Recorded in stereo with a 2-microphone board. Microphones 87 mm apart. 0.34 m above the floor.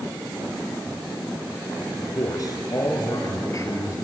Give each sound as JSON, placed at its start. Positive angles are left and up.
{"t": 2.0, "sound": "a man speaking", "side_deg": 50, "distance_m": 4.0}